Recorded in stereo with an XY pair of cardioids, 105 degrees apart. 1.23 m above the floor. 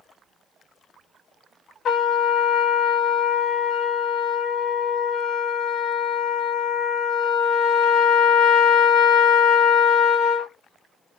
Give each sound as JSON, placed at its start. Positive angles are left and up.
{"t": 1.9, "sound": "a trumpet", "azimuth_deg": 65, "distance_m": 0.5}